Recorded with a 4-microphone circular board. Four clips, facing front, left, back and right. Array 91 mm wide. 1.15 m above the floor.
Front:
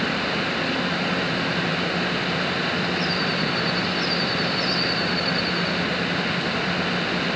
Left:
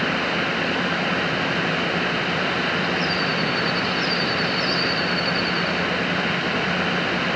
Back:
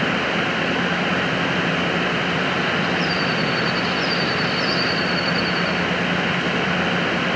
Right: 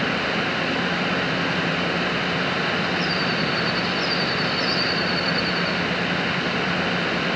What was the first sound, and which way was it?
Only background noise.